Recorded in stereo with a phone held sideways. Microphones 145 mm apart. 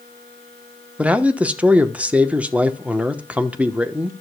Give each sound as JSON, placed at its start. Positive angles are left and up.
{"t": 1.0, "sound": "a man speaking", "side_deg": -10, "distance_m": 1.0}